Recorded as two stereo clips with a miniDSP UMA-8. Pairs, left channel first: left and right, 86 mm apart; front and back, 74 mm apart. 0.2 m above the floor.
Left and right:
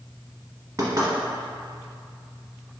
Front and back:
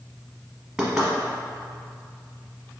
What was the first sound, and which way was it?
Knocking, 100° right.